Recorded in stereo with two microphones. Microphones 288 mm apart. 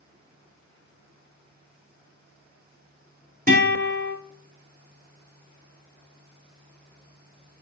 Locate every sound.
3.5 s a guitar: 30° right (ahead or behind), 1.4 m